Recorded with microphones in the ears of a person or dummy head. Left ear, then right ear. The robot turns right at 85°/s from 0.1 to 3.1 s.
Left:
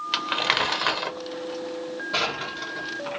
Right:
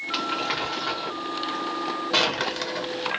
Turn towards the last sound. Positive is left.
turn(degrees=-50)  # may be behind; listen again after turning